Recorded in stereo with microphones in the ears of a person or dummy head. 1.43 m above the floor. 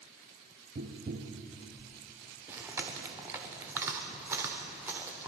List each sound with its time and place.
0.8 s tapping: 40° right (ahead or behind), 0.9 m
2.5 s chewing: 10° right (ahead or behind), 1.2 m